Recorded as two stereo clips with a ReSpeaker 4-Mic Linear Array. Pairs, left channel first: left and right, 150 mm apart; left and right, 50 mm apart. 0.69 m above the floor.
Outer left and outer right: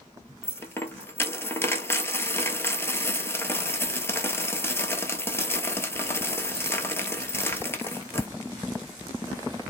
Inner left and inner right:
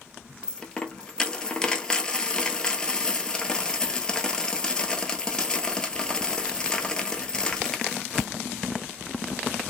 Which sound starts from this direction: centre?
A dropped coin, at 0.4 s.